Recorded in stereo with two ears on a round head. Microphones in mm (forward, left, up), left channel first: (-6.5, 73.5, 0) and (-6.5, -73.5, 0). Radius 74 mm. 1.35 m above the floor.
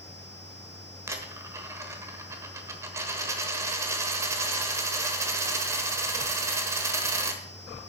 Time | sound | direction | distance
1.1 | a dropped coin | 20° right (ahead or behind) | 1.1 m